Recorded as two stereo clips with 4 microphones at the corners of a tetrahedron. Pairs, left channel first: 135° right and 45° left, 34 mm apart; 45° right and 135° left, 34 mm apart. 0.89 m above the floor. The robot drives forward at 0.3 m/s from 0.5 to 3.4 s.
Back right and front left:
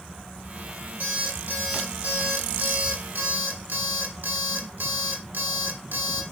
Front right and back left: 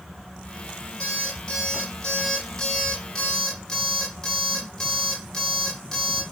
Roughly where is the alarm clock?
Ahead.